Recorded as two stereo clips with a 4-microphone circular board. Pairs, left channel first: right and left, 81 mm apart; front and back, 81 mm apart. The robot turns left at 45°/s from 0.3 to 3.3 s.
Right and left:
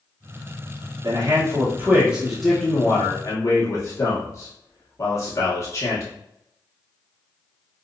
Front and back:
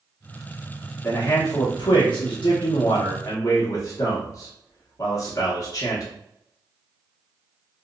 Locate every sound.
1.0 s a man speaking: 60° left, 1.1 m; by 6.0 s 45° right, 1.1 m